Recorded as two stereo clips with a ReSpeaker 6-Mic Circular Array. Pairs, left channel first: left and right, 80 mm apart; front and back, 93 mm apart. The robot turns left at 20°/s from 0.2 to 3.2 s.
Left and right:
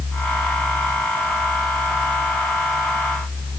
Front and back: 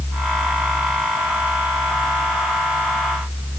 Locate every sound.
Only background noise.